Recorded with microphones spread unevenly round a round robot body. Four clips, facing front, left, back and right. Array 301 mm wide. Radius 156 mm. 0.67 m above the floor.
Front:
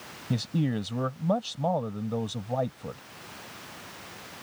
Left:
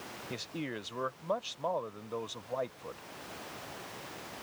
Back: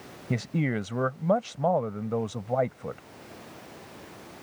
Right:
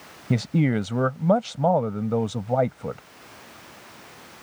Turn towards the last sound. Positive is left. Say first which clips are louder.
# right 17 dB, even
turn(degrees=-85)